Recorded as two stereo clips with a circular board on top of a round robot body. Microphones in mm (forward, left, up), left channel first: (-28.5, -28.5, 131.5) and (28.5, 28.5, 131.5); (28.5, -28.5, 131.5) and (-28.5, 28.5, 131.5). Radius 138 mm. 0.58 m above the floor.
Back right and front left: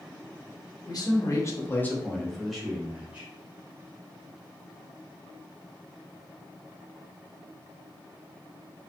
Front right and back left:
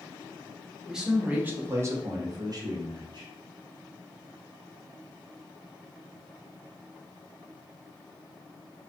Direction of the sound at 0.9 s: 140° right.